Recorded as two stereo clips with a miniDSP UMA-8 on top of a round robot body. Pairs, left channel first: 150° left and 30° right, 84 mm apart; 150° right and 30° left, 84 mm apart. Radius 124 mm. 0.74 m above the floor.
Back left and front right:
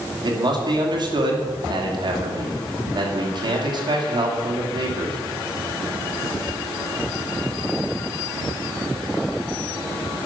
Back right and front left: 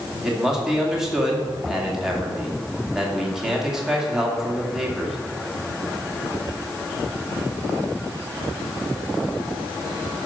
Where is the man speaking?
55° right, 2.5 m.